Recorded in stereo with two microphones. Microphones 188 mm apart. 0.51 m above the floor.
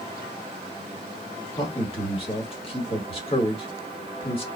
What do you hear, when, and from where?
1.6 s a man speaking: 30° left (ahead or behind), 1.6 m